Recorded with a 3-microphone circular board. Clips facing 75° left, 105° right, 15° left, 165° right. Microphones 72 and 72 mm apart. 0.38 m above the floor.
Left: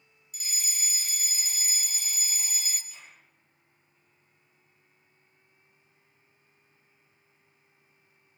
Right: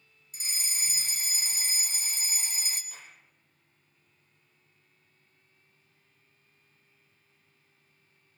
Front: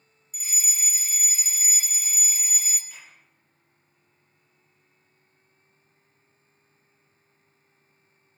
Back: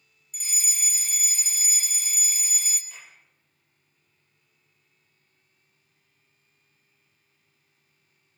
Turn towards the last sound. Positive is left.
turn(degrees=-65)